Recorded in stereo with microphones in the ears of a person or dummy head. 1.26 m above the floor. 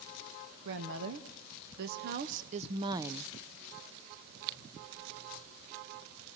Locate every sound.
0.7 s a woman speaking: 70° right (ahead or behind), 1.6 m; by 3.3 s 5° left (ahead or behind), 0.5 m